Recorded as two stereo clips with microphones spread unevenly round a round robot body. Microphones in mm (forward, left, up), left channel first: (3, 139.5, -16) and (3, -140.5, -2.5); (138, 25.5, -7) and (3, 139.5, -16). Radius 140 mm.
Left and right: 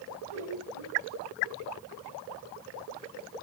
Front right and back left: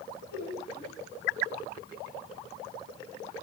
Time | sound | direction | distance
0.3 | laughter | 100° right | 3 m